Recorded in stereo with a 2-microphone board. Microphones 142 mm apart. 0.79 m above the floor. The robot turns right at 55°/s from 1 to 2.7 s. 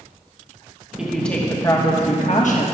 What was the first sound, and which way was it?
A woman speaking, 5° right.